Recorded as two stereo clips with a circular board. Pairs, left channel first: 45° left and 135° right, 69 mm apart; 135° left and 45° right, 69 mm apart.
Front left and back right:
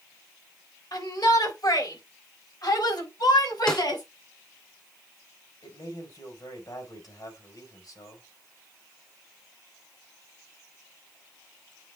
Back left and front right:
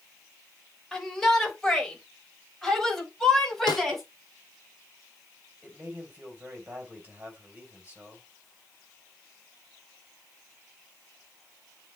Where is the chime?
I don't hear a chime.